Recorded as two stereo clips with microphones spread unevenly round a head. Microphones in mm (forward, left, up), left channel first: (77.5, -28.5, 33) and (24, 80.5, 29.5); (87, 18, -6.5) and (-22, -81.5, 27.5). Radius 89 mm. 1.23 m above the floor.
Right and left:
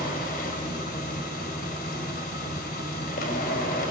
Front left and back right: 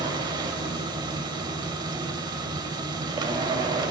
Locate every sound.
0.0 s a machine running: 80° right, 3 m